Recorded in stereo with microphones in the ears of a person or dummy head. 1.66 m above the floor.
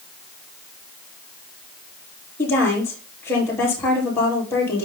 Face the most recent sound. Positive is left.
turn(degrees=10)  # may be behind; listen again after turning